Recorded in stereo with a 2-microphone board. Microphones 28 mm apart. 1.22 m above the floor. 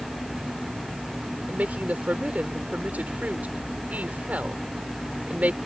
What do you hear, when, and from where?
1.5 s a woman speaking: 65° right (ahead or behind)